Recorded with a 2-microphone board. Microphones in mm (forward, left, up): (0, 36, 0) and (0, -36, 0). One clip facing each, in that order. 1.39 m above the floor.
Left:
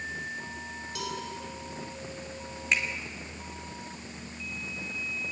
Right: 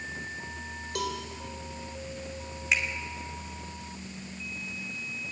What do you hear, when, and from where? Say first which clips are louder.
0.9 s a cowbell: right 4 dB; 60° right (ahead or behind), 3.5 m
2.7 s a finger snap: even; 5° right (ahead or behind), 2.5 m